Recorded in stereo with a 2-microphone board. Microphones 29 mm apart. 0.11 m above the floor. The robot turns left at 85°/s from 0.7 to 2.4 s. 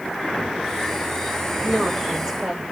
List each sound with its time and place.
1.6 s a woman speaking: 120° right, 6.5 m; by 2.6 s 175° left, 6.5 m